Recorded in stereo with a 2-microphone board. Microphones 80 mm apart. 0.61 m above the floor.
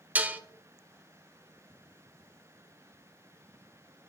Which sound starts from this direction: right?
Dishes clattering, at 0.1 s.